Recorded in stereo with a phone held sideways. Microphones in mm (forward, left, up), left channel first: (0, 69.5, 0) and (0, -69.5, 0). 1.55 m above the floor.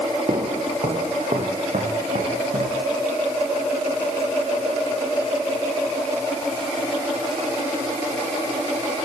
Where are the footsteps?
50° right (ahead or behind), 4 m; by 2.8 s 70° right (ahead or behind), 6 m.